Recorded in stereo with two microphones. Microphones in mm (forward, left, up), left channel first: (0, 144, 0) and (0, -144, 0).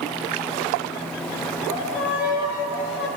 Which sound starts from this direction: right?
A violin, at 1.7 s.